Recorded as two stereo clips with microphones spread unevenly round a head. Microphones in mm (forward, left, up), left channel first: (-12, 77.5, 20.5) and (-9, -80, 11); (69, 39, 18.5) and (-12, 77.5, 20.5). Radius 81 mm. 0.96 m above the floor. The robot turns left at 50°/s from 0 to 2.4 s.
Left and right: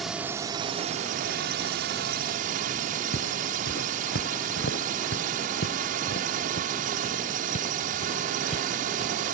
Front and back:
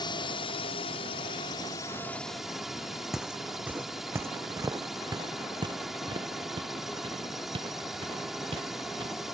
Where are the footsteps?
70° left; by 9.2 s 145° left.